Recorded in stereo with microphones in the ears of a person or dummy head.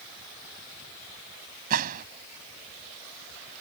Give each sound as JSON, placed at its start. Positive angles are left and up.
{"t": 1.7, "sound": "a gunshot", "side_deg": -55}